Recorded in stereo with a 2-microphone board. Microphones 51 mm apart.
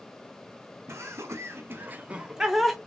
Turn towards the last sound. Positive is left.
turn(degrees=0)  # may be behind; listen again after turning